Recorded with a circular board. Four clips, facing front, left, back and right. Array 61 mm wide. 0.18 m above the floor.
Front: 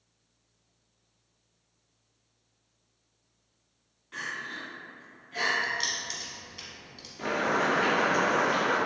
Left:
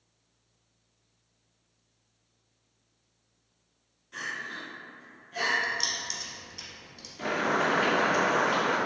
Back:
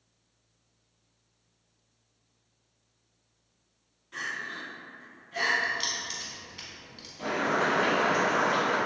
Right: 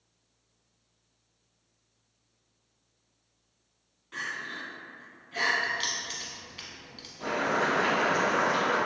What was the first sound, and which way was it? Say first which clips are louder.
Crying: even, back 1 dB; 60° right.